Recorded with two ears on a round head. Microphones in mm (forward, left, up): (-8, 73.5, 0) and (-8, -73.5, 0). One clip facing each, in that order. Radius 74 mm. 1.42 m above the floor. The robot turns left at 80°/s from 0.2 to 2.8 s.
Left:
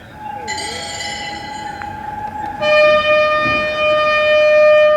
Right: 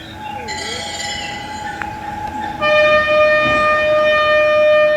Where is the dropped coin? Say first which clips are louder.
Left 1 dB; 30° left, 4 m; by 1.7 s 65° right, 4 m.